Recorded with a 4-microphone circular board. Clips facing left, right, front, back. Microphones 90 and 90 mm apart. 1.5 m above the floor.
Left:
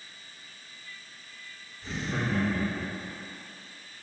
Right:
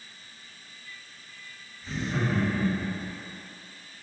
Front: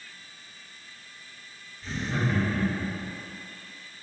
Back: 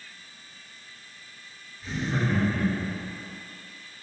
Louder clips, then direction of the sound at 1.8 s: Right 2 dB, back 1 dB; 95° left.